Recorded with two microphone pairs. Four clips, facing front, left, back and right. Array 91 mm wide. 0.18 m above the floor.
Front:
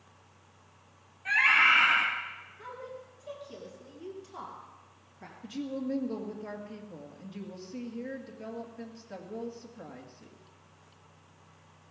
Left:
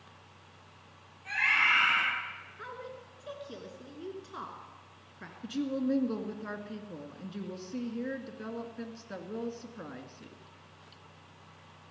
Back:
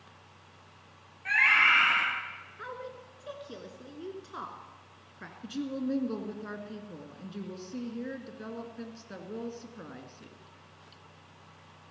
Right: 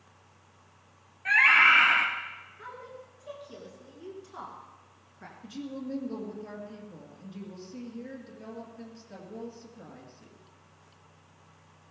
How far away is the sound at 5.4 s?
About 2 m.